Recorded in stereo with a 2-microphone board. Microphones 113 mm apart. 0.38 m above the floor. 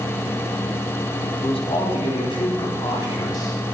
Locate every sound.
1.4 s a man speaking: 60° left (ahead or behind), 3.5 m; by 3.5 s 30° left (ahead or behind), 3 m